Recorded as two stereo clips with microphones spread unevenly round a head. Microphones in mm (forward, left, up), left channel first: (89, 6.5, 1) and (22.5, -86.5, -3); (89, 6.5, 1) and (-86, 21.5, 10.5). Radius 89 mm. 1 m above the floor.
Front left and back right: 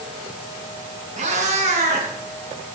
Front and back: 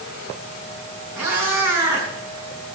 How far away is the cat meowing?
About 5 m.